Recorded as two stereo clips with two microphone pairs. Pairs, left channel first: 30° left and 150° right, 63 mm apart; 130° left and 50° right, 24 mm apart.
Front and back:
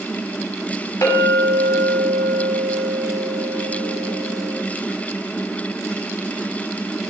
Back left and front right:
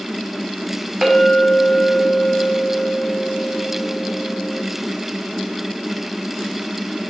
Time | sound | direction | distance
1.0 | a clink | 40° left | 5.5 m